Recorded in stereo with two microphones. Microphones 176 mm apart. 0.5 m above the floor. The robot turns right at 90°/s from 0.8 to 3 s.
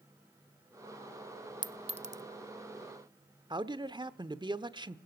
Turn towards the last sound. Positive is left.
turn(degrees=-25)  # may be behind; listen again after turning